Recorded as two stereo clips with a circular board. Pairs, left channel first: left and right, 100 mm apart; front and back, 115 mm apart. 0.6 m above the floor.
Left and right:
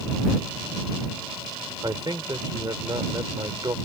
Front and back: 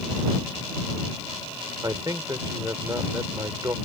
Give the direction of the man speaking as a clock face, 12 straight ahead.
4 o'clock.